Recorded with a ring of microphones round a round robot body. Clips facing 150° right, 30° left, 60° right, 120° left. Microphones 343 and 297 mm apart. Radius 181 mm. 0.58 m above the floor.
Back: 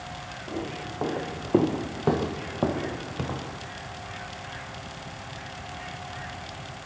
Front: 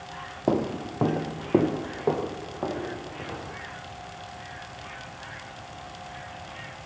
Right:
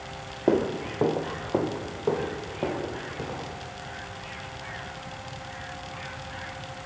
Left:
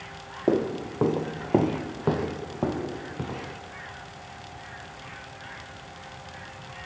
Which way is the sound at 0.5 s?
30° left.